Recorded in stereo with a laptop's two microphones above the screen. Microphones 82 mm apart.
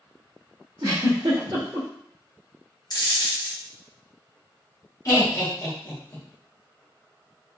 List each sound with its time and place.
0.8 s a giggle: 60° right (ahead or behind), 1.6 m
2.9 s a dropped coin: 55° left (ahead or behind), 0.6 m
5.0 s laughter: 45° left (ahead or behind), 1.3 m